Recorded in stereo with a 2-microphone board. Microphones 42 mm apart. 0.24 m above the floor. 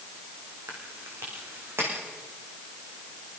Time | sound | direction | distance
0.7 | chewing | 85° right | 8 m